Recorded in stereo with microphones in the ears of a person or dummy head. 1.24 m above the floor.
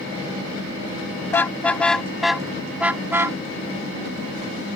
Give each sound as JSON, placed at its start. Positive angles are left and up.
{"t": 1.3, "sound": "a car horn", "side_deg": 15}